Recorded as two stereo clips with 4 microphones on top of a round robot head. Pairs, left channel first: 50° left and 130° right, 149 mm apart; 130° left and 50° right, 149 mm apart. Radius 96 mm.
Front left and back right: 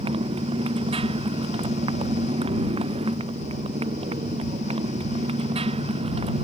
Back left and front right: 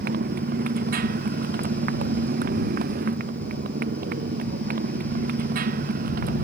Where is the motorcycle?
75° right; by 6.4 s 80° right.